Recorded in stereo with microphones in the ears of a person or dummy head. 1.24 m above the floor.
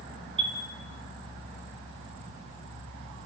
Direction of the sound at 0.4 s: 35° right (ahead or behind).